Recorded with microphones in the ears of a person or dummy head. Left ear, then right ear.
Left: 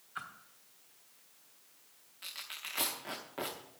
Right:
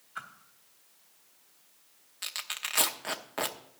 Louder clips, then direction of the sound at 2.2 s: Right 7 dB; 40° right (ahead or behind).